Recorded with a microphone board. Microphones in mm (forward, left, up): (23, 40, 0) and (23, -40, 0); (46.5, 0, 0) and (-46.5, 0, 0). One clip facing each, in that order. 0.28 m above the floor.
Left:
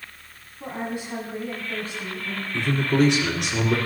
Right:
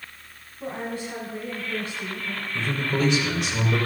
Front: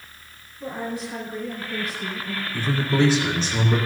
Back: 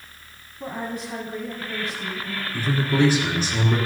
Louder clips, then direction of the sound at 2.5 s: Left 5 dB, even; 100° left.